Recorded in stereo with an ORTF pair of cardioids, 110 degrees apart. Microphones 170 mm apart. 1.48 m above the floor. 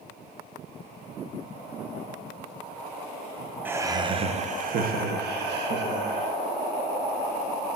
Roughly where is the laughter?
Ahead.